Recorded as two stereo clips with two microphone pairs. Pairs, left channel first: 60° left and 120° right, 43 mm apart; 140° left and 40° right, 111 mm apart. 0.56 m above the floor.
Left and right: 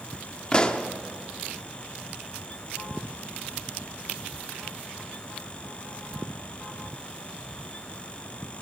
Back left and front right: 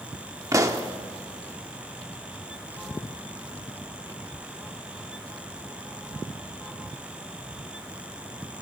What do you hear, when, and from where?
0.5 s a pop: straight ahead, 0.9 m